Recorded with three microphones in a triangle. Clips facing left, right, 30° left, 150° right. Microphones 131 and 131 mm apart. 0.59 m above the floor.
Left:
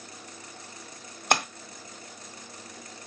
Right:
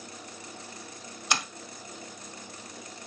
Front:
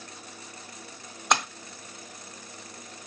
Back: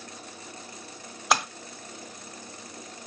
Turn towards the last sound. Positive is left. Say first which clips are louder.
# left 6 dB, back 1 dB
turn(degrees=125)